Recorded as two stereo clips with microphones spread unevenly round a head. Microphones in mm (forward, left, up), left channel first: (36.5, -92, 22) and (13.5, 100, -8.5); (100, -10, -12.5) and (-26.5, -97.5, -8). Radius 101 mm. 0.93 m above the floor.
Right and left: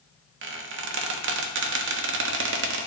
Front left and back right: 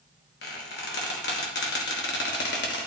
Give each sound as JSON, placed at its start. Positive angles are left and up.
{"t": 0.4, "sound": "a squeak", "azimuth_deg": 75, "distance_m": 1.0}